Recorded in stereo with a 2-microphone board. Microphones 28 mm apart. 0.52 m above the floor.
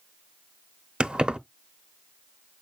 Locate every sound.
1.0 s keys jangling: 35° right (ahead or behind), 0.7 m